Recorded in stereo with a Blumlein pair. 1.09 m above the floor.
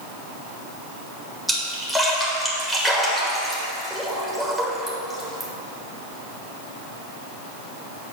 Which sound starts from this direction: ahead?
A splash, at 1.5 s.